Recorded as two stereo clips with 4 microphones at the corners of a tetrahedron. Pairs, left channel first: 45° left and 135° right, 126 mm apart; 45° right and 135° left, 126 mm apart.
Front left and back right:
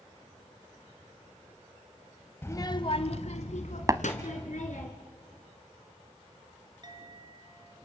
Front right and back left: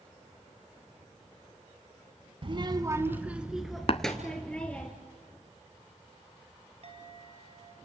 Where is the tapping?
75° right, 0.7 m.